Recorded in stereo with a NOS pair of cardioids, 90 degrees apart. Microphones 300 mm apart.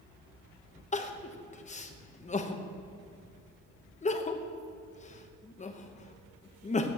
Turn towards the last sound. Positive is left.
turn(degrees=25)